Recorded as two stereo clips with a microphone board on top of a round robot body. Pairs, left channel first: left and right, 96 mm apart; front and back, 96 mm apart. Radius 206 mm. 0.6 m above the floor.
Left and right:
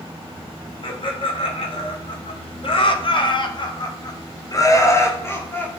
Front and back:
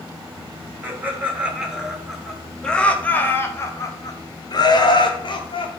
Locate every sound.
0.8 s laughter: 110° left, 2 m; by 5.7 s 20° left, 2 m